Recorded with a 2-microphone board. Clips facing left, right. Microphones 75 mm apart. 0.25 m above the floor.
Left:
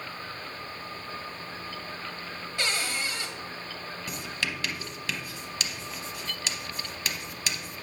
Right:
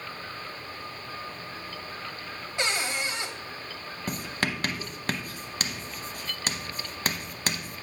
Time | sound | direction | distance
2.6 | a cupboard door | 20° right (ahead or behind) | 0.9 m
4.1 | writing | 45° right (ahead or behind) | 0.7 m